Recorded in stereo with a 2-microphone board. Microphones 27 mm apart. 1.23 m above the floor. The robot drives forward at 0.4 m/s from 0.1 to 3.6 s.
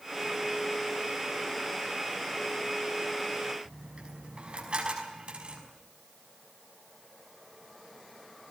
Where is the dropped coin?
40° right (ahead or behind), 5.5 m.